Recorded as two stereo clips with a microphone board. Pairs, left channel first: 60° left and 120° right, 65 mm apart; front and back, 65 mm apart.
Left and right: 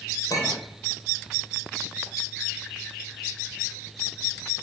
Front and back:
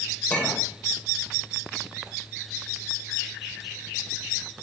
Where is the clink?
70° left, 1.9 m.